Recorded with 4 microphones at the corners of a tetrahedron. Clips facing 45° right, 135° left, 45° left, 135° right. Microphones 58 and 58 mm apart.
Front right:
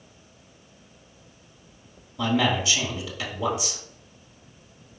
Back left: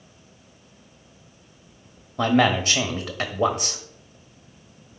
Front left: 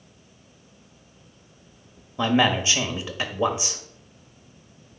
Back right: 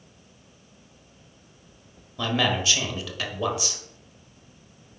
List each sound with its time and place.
2.2 s a man speaking: 105° left, 1.5 m